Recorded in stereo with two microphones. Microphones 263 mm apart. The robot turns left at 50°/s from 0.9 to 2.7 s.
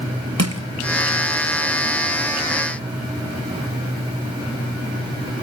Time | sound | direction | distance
0.4 | crushing | 70° right (ahead or behind) | 1.7 m